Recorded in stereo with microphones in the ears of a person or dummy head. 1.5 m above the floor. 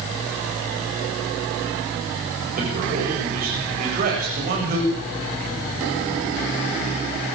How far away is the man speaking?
About 8 m.